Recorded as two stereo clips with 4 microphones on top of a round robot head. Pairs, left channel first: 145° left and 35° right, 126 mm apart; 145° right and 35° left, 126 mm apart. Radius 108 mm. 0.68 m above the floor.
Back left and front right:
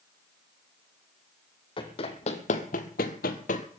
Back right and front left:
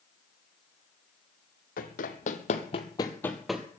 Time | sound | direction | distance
1.8 | running footsteps | 165° right | 1.7 m